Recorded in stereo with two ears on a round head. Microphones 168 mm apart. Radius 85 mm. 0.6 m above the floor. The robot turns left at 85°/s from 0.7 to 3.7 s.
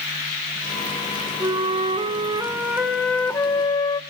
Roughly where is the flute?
Centre.